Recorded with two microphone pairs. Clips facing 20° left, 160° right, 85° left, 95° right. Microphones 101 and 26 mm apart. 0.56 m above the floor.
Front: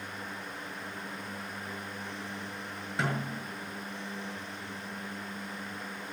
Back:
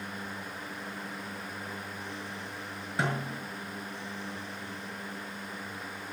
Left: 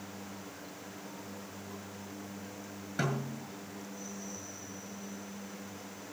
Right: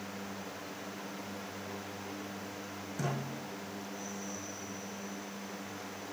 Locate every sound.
3.0 s a snare drum: 110° left, 7 m